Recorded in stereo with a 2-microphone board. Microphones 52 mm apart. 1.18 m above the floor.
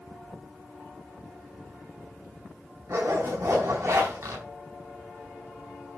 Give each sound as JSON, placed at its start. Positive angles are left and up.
{"t": 2.9, "sound": "a zipper", "side_deg": -70, "distance_m": 4.5}